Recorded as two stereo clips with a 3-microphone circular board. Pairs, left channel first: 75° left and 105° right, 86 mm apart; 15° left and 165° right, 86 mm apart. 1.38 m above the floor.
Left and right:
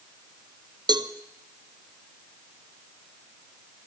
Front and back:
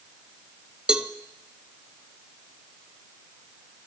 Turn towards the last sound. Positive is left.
turn(degrees=-85)